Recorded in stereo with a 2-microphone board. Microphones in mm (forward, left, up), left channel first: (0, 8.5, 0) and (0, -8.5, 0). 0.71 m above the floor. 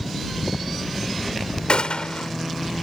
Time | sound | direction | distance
1.7 | a gunshot | 65° left (ahead or behind) | ?